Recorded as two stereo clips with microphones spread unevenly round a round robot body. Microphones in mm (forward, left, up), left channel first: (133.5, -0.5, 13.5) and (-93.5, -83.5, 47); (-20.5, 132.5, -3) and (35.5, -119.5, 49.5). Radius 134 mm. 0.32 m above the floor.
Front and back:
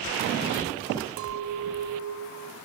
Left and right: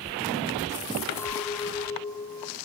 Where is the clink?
170° left, 1.1 m.